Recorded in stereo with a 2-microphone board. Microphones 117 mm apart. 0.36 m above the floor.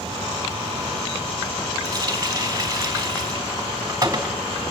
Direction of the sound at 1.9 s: 30° right (ahead or behind).